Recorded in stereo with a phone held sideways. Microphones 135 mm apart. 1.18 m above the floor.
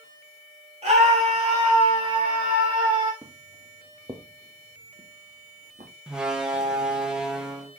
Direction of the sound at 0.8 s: 55° right (ahead or behind).